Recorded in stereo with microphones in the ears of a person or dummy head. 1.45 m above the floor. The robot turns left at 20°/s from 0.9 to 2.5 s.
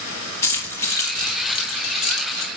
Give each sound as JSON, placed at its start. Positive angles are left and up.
{"t": 0.4, "sound": "keys jangling", "side_deg": 15, "distance_m": 1.5}